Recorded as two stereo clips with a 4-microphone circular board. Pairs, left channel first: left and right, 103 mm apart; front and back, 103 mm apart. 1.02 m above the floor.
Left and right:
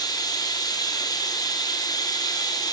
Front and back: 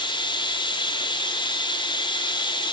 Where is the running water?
40° left, 2.5 m.